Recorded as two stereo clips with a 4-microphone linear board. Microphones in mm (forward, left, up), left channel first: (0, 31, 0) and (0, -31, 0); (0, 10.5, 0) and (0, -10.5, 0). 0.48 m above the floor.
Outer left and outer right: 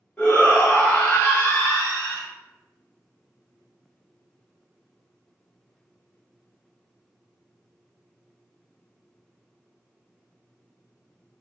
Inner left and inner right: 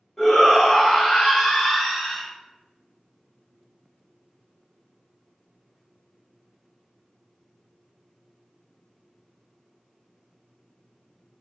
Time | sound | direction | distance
0.2 | a shout | 35° left (ahead or behind) | 1.0 m